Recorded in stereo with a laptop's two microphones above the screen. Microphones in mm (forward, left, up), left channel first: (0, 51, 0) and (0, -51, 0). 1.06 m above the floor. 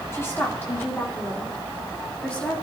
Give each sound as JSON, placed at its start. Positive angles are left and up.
{"t": 0.1, "sound": "a woman speaking", "side_deg": 30, "distance_m": 2.0}